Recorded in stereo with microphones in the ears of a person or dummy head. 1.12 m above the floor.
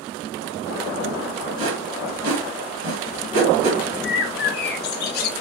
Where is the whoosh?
75° right (ahead or behind), 1.3 m.